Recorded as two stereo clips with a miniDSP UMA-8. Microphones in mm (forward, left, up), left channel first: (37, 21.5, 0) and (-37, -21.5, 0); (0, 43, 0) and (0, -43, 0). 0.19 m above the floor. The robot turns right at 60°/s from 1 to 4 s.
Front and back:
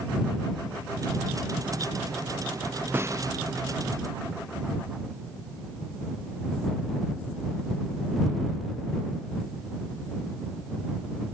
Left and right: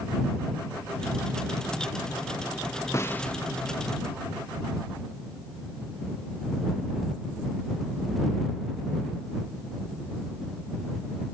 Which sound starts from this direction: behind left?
A snare drum, at 2.9 s.